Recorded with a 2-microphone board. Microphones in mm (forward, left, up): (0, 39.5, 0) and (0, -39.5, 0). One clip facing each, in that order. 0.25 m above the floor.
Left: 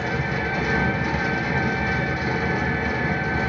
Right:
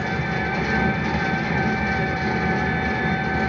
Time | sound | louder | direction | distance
0.0 | an engine running | right 1 dB | 5° left (ahead or behind) | 1.0 m